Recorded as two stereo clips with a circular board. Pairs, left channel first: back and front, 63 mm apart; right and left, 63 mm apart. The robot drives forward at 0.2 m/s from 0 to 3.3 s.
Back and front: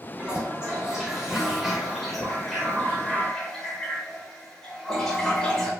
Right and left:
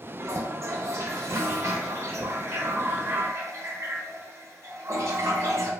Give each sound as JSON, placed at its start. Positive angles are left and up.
{"t": 0.2, "sound": "a toilet flushing", "azimuth_deg": 70, "distance_m": 1.3}